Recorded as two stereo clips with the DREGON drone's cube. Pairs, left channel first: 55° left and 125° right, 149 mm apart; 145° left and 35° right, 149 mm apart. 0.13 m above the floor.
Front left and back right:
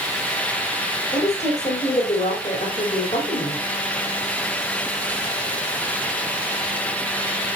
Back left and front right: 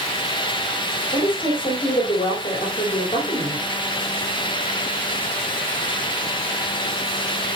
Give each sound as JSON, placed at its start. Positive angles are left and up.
{"t": 1.1, "sound": "a woman speaking", "azimuth_deg": 95, "distance_m": 3.5}